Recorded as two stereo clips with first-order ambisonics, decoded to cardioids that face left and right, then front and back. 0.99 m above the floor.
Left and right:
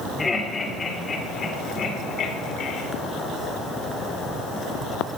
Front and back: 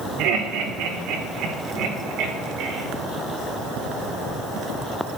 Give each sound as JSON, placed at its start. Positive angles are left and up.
{"t": 0.2, "sound": "laughter", "azimuth_deg": 170, "distance_m": 3.5}